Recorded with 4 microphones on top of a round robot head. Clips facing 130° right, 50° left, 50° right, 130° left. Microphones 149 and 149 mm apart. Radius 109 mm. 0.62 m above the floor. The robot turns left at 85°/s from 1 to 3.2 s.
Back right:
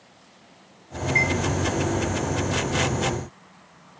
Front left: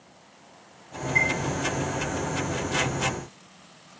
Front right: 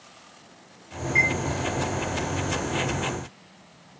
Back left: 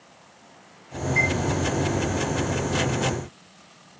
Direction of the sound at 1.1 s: 55° right.